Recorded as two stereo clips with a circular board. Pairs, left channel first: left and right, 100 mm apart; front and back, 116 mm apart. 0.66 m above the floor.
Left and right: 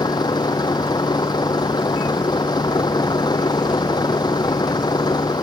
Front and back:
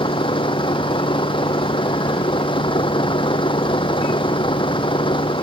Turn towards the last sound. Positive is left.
turn(degrees=45)